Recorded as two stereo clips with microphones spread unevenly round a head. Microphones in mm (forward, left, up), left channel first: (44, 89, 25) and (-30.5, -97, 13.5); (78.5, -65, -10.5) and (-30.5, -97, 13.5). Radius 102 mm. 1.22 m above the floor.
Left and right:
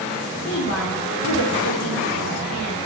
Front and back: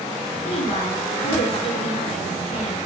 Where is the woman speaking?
65° left, 2.5 m.